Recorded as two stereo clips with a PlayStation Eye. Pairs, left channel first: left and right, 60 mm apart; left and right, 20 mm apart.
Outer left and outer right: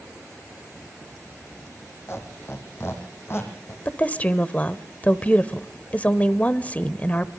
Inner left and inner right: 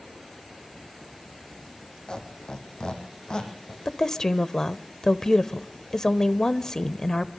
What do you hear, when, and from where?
2.1 s a squeak: 45° left (ahead or behind), 4.5 m
3.9 s a woman speaking: 25° left (ahead or behind), 1.0 m